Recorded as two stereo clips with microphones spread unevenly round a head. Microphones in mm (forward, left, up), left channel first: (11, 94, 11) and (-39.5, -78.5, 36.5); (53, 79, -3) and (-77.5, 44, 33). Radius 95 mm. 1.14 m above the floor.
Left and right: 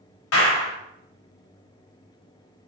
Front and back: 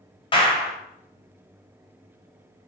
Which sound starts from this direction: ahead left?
A clap, at 0.3 s.